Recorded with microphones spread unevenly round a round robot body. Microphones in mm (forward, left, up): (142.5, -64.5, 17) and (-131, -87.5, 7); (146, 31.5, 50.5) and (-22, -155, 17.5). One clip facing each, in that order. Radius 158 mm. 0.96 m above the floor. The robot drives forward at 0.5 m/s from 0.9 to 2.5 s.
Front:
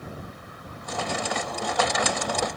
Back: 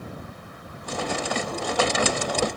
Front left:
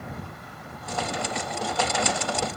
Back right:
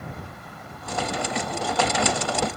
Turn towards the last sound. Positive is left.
No sound to turn to.